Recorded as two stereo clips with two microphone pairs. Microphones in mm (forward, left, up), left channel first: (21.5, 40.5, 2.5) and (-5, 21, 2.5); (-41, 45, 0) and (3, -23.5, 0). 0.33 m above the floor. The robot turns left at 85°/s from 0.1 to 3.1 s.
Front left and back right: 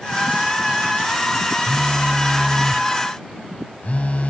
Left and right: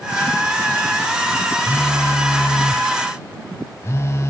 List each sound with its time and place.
1.7 s a phone buzzing: 165° right; by 4.3 s 75° left